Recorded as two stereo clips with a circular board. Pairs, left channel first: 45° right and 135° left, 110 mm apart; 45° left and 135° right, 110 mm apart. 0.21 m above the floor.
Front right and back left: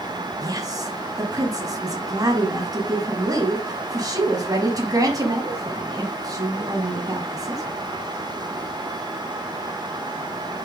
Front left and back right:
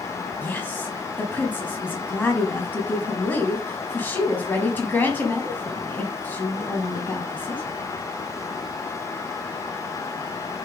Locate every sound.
0.4 s a woman speaking: 110° left, 1.1 m